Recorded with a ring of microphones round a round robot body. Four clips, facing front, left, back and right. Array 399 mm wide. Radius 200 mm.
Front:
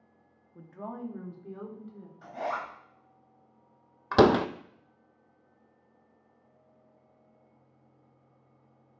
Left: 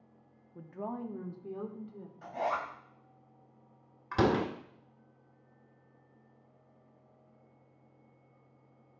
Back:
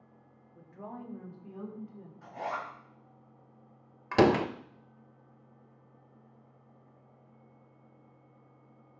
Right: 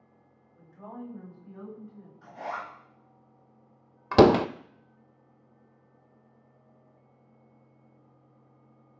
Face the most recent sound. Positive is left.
turn(degrees=-80)